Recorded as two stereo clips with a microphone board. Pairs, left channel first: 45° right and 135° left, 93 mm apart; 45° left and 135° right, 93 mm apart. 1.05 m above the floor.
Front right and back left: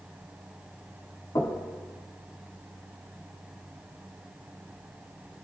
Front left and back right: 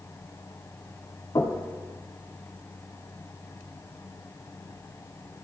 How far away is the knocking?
About 1.6 m.